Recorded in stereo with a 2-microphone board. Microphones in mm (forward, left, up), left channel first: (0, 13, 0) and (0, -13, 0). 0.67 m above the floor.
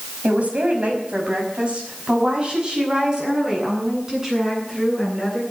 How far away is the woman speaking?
About 5.5 m.